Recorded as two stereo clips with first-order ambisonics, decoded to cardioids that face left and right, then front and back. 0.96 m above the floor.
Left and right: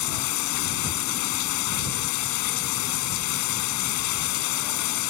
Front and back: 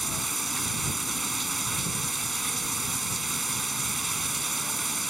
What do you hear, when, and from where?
0.0 s running water: 100° left